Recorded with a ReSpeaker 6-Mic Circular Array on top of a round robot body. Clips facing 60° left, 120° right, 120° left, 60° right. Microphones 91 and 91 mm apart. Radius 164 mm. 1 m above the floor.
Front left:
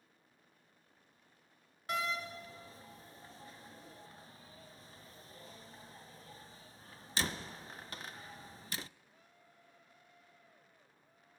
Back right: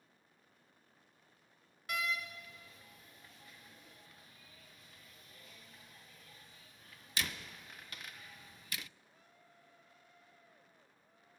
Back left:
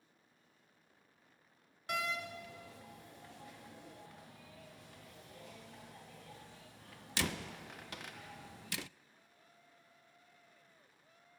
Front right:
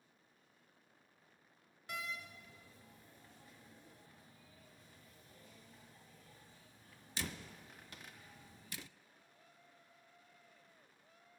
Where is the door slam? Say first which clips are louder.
Front left 2 dB, back left 8 dB; 120° left, 0.6 m.